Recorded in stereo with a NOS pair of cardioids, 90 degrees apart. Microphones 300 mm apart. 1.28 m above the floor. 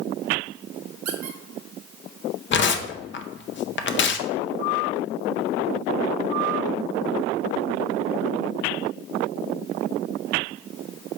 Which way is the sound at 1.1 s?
60° right.